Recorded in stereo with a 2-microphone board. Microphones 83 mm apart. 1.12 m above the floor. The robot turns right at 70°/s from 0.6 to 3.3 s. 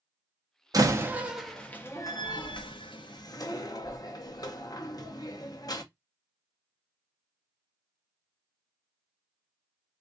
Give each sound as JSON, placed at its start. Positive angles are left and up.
{"t": 0.7, "sound": "a door slam", "side_deg": -50, "distance_m": 0.6}